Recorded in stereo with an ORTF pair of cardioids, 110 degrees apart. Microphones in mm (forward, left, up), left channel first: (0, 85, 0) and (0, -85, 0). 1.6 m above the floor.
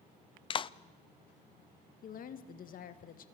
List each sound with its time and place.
0.5 s a clap: 30° left, 0.6 m
2.0 s a woman speaking: 55° left, 2 m